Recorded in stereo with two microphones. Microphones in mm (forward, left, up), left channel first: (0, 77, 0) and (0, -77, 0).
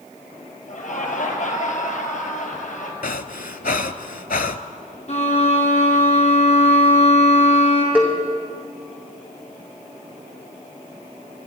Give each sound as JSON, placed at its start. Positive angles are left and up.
{"t": 0.7, "sound": "laughter", "side_deg": 60, "distance_m": 2.5}
{"t": 3.0, "sound": "breathing", "side_deg": 70, "distance_m": 0.5}
{"t": 5.1, "sound": "a violin", "side_deg": 50, "distance_m": 3.5}
{"t": 8.0, "sound": "a cowbell", "side_deg": -10, "distance_m": 2.0}